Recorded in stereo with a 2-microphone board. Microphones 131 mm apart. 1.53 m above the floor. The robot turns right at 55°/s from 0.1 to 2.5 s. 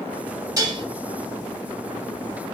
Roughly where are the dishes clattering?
Right.